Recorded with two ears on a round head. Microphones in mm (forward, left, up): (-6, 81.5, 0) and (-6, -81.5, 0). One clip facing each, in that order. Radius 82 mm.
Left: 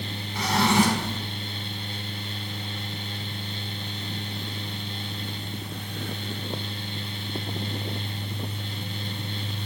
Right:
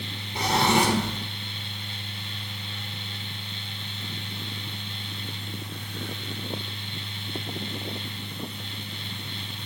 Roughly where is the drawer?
Right.